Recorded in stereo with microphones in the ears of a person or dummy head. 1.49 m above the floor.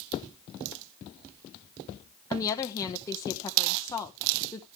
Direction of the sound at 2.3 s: 20° left (ahead or behind).